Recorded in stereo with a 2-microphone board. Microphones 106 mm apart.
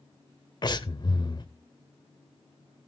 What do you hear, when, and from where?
0.6 s breathing: 40° left (ahead or behind), 0.8 m